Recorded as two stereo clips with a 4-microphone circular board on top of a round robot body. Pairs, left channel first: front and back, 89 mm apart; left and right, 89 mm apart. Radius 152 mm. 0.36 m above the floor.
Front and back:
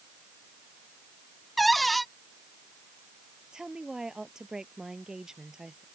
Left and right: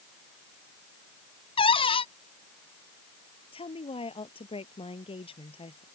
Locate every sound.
1.6 s a cupboard door: 90° left
3.5 s a woman speaking: 95° left